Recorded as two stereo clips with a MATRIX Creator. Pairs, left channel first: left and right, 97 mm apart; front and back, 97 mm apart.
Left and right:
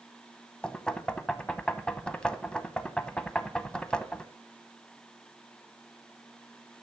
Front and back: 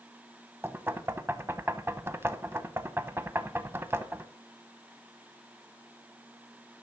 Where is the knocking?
160° left, 0.7 m.